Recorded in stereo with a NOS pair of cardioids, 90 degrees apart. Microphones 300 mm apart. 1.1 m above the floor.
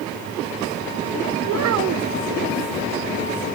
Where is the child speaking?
60° right, 0.8 m.